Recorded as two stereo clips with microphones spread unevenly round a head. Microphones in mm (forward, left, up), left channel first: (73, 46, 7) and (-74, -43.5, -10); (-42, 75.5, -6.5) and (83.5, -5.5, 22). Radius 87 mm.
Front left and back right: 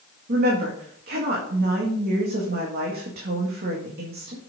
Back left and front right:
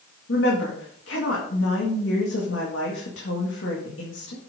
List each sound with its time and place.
0.3 s a woman speaking: 175° left, 2.0 m